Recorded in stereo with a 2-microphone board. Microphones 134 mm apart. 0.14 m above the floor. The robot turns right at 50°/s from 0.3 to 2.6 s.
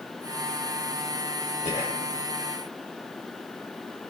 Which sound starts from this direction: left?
Whispering, at 1.6 s.